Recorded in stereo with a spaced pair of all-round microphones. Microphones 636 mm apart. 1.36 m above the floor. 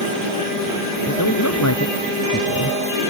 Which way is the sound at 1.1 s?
25° left (ahead or behind).